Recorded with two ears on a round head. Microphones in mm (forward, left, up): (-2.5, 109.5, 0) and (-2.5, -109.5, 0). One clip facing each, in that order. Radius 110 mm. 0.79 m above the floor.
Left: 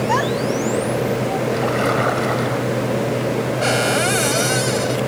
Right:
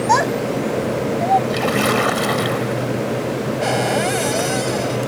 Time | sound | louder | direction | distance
0.1 | a child speaking | even | 65° right (ahead or behind) | ?
1.5 | a splash | right 1 dB | 50° right (ahead or behind) | ?
3.6 | a cupboard door | even | 10° left (ahead or behind) | ?